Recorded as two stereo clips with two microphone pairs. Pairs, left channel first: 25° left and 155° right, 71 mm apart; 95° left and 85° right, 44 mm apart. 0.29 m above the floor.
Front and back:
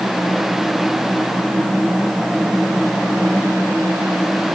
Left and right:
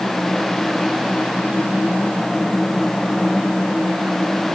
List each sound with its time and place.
Only background noise.